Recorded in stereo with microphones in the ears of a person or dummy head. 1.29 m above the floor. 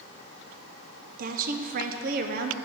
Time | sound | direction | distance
1.2 | a woman speaking | 45° right (ahead or behind) | 0.6 m